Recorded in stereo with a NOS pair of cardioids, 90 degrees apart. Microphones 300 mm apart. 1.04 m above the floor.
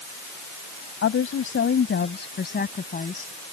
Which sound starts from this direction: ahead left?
A woman speaking, at 1.0 s.